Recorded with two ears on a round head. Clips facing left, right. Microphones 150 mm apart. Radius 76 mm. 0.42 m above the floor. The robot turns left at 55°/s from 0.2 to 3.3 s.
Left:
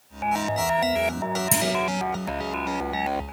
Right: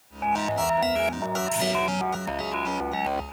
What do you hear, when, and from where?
1.5 s a clunk: 65° left (ahead or behind), 4.5 m; by 1.7 s 55° left (ahead or behind), 4.5 m